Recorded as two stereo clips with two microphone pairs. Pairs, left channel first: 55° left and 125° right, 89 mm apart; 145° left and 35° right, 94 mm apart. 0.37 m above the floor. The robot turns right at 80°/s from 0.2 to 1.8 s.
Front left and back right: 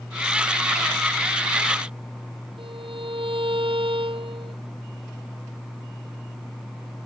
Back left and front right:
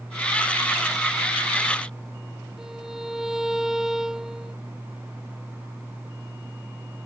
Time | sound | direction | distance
2.6 | a violin | 120° right | ?